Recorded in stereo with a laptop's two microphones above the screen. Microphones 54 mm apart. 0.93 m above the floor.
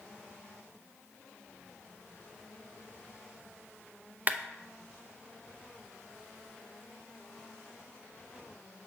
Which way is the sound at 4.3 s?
35° right (ahead or behind).